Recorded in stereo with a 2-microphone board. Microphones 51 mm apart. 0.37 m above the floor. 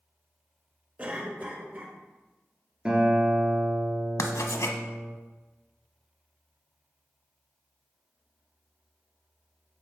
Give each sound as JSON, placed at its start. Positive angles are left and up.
{"t": 1.0, "sound": "a cough", "side_deg": -35, "distance_m": 1.2}
{"t": 2.9, "sound": "a guitar", "side_deg": -20, "distance_m": 1.7}
{"t": 4.2, "sound": "writing", "side_deg": 85, "distance_m": 0.7}